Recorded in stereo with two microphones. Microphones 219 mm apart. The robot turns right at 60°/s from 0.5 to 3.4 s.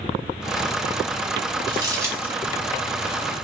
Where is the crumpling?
20° right (ahead or behind), 1.8 m; by 2.3 s 5° right (ahead or behind), 1.8 m.